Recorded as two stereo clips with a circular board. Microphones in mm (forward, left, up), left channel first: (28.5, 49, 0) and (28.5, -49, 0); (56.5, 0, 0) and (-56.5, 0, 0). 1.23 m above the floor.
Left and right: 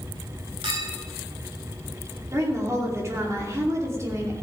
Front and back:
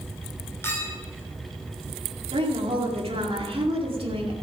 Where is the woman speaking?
145° right, 2.5 m.